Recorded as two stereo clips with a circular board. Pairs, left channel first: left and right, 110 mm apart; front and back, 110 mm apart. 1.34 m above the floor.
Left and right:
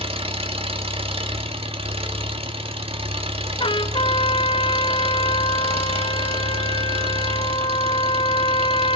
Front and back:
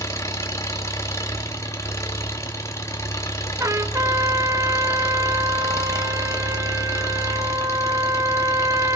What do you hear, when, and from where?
0.0 s an engine running: 65° right, 1.7 m
3.6 s a trumpet: 120° left, 0.8 m